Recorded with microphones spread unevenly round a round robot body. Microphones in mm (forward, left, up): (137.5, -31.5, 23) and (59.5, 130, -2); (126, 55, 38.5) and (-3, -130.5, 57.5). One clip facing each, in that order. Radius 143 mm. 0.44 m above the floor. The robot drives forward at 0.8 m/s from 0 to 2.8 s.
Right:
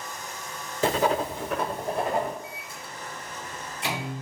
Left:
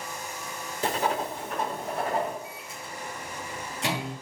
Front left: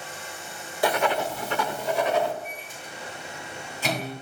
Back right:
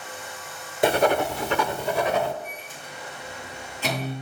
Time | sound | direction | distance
0.8 | writing | 55° right | 0.6 m
2.4 | a microwave | 140° left | 5 m